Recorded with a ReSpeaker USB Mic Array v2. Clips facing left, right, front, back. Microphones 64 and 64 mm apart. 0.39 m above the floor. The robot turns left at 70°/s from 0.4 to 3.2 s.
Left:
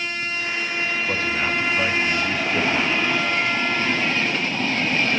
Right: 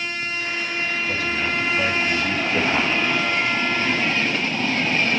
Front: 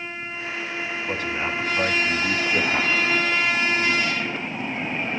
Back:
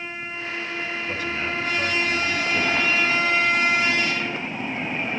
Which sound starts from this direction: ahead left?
A man speaking, at 1.1 s.